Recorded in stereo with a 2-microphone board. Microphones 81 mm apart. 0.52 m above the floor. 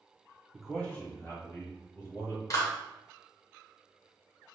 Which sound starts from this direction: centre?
A man speaking, at 0.5 s.